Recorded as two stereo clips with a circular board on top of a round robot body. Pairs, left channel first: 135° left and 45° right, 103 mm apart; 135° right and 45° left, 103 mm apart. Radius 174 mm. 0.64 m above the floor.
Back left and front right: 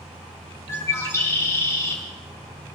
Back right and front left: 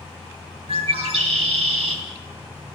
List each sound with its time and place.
0.7 s a bird: 70° left, 3 m